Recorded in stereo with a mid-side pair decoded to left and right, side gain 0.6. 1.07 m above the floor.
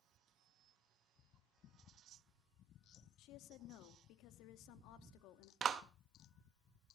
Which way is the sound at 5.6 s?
45° right.